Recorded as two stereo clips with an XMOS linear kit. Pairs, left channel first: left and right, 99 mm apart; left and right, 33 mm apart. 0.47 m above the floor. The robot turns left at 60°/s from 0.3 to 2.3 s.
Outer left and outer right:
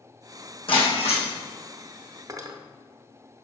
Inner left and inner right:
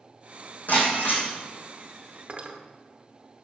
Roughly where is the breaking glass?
Behind left.